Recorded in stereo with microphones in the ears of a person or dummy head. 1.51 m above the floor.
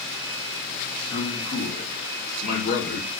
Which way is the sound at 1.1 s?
85° left.